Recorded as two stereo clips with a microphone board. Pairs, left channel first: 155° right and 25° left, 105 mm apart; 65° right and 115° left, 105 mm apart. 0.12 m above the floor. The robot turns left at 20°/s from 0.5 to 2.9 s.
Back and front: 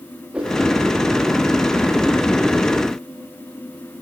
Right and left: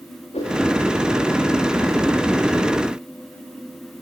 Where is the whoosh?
55° right, 8 m; by 0.6 s 60° right, 8 m.